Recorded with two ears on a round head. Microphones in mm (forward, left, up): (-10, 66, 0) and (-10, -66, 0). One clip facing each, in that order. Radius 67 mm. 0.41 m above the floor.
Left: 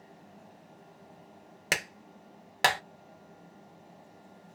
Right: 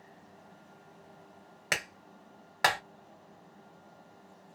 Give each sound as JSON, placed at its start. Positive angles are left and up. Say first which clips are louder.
{"t": 1.7, "sound": "a clap", "louder": "left 2 dB", "side_deg": 25, "distance_m": 0.7}